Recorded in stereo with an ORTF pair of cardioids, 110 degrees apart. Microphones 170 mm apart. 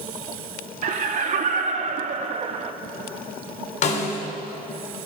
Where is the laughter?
50° right, 2.5 m; by 2.7 s 40° right, 1.3 m.